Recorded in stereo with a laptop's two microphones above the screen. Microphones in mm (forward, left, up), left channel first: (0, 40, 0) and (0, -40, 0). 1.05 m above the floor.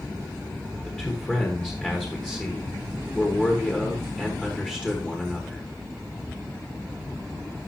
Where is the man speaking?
15° left (ahead or behind), 1.5 m.